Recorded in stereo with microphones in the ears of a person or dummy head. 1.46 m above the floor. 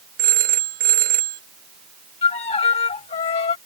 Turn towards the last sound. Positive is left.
turn(degrees=40)  # may be behind; listen again after turning